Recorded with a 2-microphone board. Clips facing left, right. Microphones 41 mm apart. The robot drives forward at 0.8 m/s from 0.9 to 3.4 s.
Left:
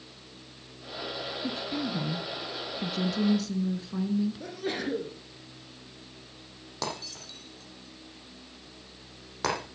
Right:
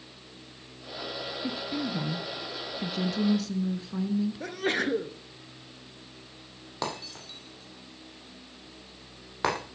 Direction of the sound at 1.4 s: 5° right (ahead or behind).